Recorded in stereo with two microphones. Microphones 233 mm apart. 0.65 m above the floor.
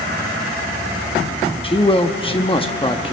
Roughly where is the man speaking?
Left.